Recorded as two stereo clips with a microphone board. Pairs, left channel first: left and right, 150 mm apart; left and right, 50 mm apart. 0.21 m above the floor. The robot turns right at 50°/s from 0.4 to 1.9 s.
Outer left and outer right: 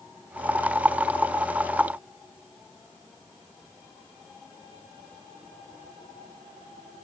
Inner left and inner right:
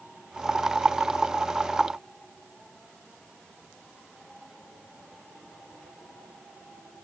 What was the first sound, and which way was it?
Only background noise.